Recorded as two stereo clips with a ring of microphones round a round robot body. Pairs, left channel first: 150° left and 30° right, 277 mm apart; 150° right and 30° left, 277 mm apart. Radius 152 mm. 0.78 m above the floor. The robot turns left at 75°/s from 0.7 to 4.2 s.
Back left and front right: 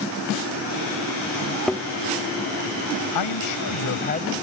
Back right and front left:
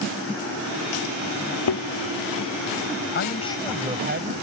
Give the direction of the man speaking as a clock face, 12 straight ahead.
7 o'clock.